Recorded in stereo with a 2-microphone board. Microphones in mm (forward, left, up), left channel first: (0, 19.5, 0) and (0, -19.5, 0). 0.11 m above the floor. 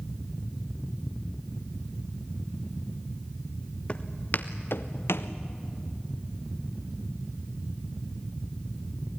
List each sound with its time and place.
3.9 s footsteps: 30° left (ahead or behind), 1.3 m; by 5.3 s 80° left, 1.3 m